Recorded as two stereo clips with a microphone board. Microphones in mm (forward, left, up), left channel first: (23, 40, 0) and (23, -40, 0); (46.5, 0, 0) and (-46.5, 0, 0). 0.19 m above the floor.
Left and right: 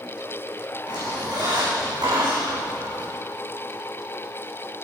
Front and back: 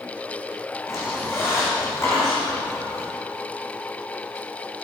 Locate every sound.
0.9 s a squeak: 60° right, 5 m